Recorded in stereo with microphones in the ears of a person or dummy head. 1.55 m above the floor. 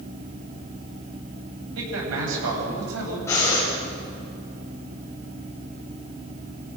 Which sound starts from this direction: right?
A man speaking, at 1.8 s.